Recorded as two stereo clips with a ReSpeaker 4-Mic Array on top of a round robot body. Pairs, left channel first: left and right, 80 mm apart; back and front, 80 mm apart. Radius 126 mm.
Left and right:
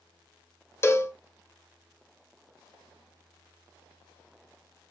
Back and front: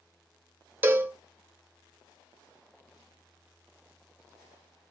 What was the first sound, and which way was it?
A cowbell, 50° left.